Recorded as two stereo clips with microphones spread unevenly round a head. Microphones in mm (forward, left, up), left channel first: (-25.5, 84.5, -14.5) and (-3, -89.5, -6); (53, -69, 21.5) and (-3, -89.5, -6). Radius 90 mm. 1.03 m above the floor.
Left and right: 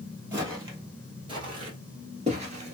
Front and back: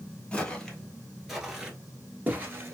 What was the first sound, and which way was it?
Footsteps, 15° right.